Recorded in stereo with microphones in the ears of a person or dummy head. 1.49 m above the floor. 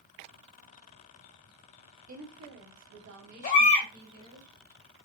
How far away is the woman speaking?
About 1.4 m.